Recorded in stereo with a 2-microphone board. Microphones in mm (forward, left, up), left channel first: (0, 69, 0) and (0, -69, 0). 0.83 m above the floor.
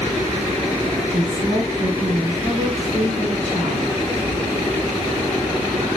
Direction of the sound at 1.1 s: 60° right (ahead or behind).